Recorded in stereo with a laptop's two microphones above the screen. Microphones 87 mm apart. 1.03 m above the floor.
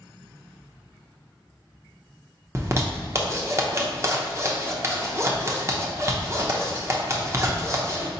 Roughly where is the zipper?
Right.